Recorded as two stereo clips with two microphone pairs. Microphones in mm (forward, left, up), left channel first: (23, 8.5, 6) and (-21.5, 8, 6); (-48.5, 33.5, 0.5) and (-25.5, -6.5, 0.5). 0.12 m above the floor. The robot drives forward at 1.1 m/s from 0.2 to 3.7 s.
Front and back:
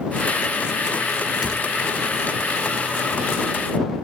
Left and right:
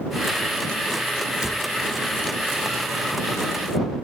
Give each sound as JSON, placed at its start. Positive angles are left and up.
{"t": 1.4, "sound": "a cupboard door", "azimuth_deg": -110, "distance_m": 0.6}